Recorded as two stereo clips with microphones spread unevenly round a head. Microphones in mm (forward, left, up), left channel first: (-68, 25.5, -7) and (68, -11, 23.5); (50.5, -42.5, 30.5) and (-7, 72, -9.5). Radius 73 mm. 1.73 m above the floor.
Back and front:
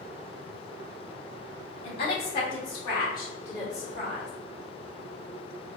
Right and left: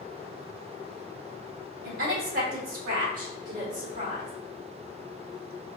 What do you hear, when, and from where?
1.8 s a woman speaking: 115° left, 1.9 m; by 4.3 s 90° left, 2.5 m